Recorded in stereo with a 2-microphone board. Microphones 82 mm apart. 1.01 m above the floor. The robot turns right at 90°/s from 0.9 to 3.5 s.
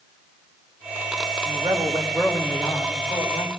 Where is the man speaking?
85° right, 4 m; by 3.5 s 100° left, 4 m.